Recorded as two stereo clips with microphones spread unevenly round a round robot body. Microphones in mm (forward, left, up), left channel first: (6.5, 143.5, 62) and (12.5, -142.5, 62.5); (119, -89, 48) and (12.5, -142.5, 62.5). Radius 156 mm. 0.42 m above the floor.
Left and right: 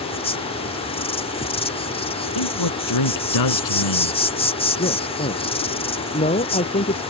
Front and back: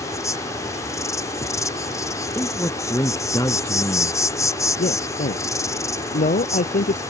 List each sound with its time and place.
0.0 s an insect: 40° left
2.4 s a man speaking: 105° left
4.8 s a man speaking: 25° left